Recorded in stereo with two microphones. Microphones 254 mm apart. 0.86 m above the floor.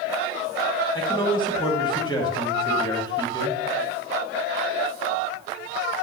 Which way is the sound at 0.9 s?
15° left (ahead or behind).